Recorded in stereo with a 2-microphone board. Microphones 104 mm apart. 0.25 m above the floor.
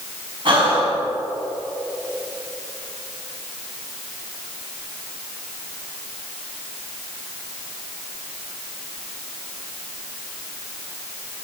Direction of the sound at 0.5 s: 55° right (ahead or behind).